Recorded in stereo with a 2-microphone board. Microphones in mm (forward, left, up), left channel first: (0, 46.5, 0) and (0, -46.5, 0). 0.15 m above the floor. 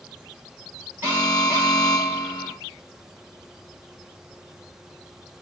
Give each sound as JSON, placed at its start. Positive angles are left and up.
{"t": 1.0, "sound": "an alarm", "side_deg": -20, "distance_m": 2.5}